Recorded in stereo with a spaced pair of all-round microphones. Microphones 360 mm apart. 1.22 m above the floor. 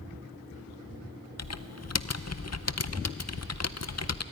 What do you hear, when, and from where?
1.4 s typing on a keyboard: 45° left (ahead or behind), 0.6 m